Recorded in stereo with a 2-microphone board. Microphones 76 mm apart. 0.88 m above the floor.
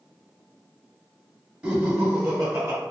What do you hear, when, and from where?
1.6 s laughter: 20° right (ahead or behind), 1.7 m; by 2.8 s 50° right (ahead or behind), 1.1 m